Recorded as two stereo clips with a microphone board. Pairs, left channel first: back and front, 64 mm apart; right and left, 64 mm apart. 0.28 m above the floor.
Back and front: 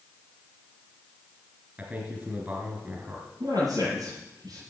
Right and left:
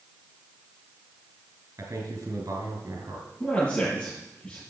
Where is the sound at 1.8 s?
65° left, 4.5 m.